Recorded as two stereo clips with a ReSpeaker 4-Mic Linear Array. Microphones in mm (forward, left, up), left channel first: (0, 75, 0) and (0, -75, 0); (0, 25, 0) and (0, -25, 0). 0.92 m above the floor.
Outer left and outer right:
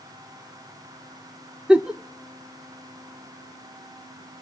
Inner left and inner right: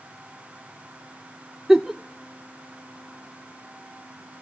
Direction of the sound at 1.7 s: 5° right (ahead or behind).